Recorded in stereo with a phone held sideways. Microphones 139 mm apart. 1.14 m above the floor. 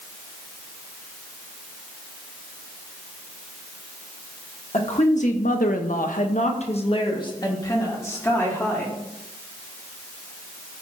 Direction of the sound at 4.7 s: 50° left (ahead or behind).